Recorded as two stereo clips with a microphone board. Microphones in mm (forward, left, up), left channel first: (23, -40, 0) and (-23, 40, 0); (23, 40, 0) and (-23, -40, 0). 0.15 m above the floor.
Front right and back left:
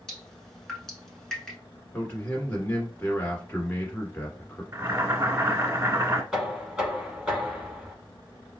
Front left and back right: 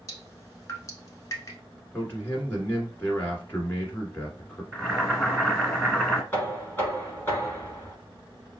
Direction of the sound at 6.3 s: 50° left.